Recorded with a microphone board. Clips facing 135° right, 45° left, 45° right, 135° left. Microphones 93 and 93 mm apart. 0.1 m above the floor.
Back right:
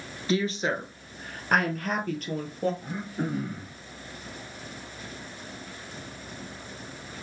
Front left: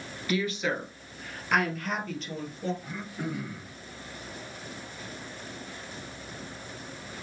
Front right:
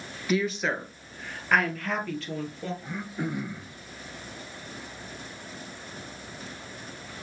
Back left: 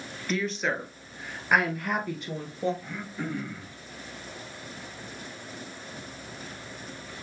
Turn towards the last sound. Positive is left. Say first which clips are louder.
# back right 4 dB, front right 2 dB
turn(degrees=-115)